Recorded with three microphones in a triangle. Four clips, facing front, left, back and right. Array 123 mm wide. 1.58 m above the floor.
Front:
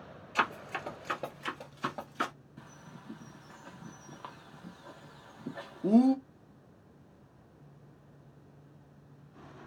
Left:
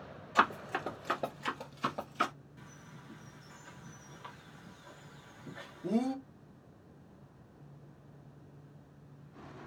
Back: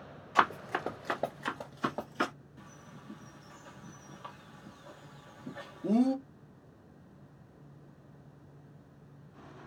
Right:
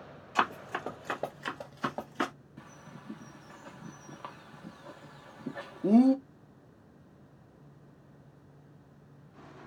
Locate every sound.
0.3 s running footsteps: 165° left, 1.7 m; by 2.3 s 100° right, 1.8 m
2.6 s a bird: 60° right, 1.0 m